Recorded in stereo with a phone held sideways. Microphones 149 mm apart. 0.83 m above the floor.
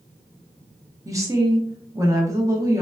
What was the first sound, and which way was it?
A woman speaking, 20° right (ahead or behind).